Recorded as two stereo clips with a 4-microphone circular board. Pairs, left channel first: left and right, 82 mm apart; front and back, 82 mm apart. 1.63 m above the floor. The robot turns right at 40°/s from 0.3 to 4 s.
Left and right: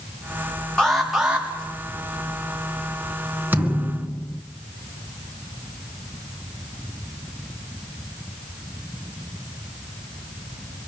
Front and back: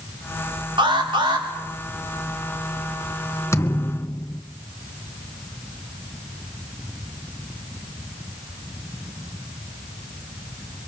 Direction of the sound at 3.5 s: 35° right.